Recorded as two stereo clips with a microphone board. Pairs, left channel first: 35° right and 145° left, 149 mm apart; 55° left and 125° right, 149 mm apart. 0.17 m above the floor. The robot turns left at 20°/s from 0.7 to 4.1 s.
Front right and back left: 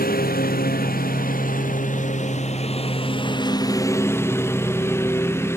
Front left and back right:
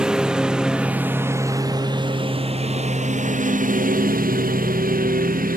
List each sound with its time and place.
0.0 s a lawn mower: 40° right; by 5.6 s 110° right